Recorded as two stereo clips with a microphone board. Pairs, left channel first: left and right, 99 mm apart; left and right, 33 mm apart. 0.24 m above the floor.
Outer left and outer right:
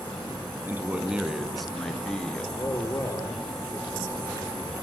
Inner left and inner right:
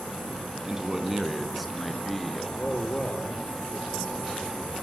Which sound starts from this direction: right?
A man speaking, at 0.7 s.